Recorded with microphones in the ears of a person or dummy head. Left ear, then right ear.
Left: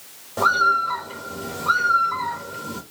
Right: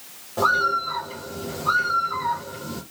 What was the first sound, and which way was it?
A bird, 15° left (ahead or behind).